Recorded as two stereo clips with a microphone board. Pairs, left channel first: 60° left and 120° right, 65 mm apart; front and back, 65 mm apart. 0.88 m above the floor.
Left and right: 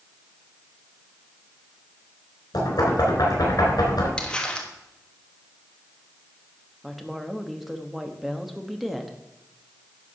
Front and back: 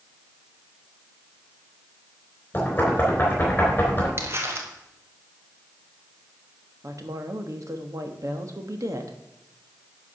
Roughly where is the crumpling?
Behind left.